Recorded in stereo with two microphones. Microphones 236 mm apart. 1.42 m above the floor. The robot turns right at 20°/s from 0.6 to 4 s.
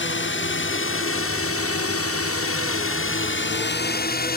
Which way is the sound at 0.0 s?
55° left (ahead or behind).